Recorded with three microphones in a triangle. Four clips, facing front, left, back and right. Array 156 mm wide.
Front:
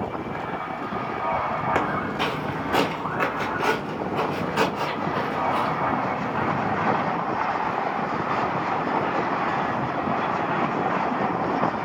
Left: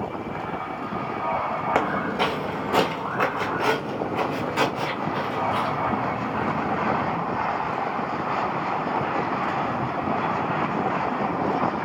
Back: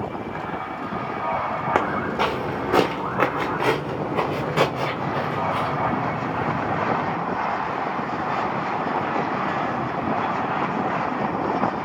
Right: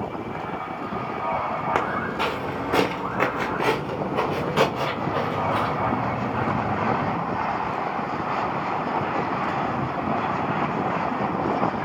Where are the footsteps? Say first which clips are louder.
Left 1 dB, back 2 dB; 165° left, 1.4 m; by 7.2 s 105° right, 2.5 m.